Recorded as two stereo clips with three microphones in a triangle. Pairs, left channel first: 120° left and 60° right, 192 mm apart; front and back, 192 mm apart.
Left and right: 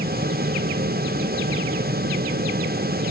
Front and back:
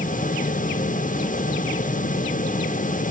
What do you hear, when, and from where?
Only background noise.